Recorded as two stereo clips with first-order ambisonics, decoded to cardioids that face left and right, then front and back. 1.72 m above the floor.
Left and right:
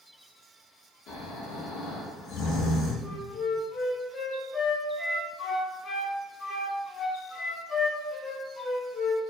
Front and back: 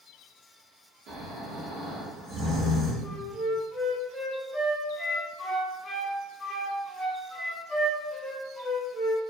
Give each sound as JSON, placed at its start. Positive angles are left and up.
{"t": 1.1, "sound": "snoring", "azimuth_deg": 135, "distance_m": 1.1}
{"t": 3.0, "sound": "a flute", "azimuth_deg": 60, "distance_m": 0.7}